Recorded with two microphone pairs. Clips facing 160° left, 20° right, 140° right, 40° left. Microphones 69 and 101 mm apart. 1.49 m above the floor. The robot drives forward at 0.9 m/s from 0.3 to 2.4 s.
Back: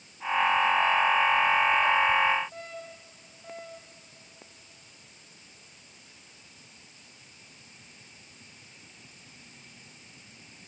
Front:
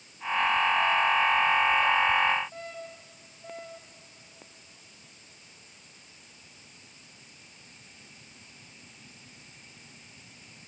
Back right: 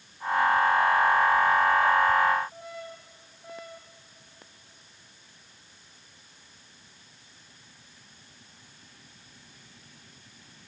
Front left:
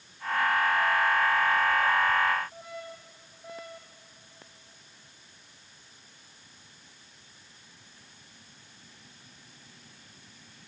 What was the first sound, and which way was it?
Only background noise.